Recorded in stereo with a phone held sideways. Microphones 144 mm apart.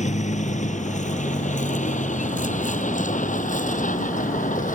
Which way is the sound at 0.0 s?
55° left (ahead or behind).